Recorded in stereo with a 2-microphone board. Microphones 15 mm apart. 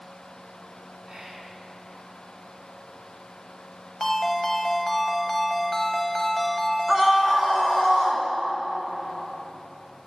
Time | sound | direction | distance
1.1 | whispering | 50° right (ahead or behind) | 3 m
4.0 | a ringtone | 25° left (ahead or behind) | 1.1 m
6.9 | a scream | 5° right (ahead or behind) | 1.9 m